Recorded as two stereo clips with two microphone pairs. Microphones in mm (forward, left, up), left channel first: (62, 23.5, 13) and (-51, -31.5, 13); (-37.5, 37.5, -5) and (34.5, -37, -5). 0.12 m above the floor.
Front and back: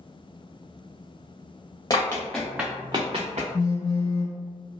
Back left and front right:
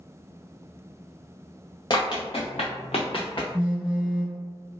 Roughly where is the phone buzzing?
Ahead left.